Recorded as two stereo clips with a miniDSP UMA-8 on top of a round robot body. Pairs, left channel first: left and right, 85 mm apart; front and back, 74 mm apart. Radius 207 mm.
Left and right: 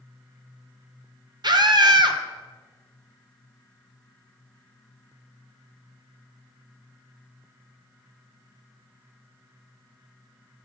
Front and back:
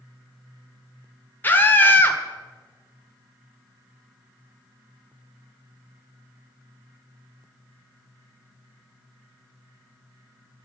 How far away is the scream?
About 2.5 m.